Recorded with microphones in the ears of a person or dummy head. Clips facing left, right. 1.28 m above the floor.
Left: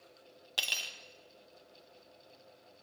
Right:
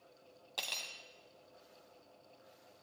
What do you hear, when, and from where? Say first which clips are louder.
0.6 s cutlery clinking: left 1 dB; 10° left (ahead or behind), 0.7 m